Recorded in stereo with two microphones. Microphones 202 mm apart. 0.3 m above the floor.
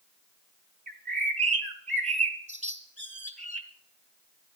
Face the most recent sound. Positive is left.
turn(degrees=-35)  # may be behind; listen again after turning